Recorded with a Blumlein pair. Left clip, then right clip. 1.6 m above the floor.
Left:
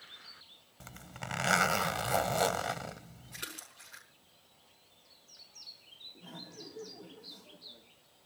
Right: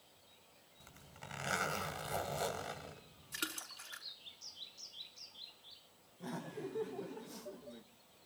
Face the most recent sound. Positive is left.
turn(degrees=-35)